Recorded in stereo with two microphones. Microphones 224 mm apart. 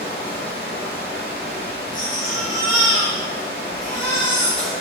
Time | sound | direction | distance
0.0 | running water | 45° right (ahead or behind) | 1.2 m
1.9 | a baby crying | 60° right (ahead or behind) | 1.5 m